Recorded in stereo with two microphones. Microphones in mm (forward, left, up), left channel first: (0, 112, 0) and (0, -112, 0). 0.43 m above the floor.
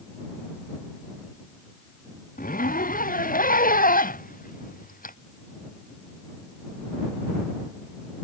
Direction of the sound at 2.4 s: 35° left (ahead or behind).